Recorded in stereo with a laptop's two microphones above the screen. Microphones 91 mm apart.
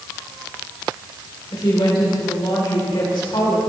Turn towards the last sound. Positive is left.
turn(degrees=65)  # may be behind; listen again after turning